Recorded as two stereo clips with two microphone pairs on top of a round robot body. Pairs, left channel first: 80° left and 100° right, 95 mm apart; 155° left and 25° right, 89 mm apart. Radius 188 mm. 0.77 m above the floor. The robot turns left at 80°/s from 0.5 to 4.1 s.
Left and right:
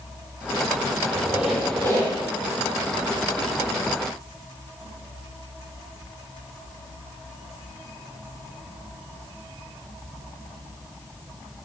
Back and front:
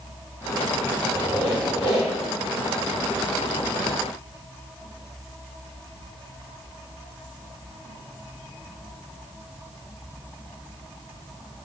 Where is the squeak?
150° right, 6.5 m; by 2.1 s 120° left, 6.5 m.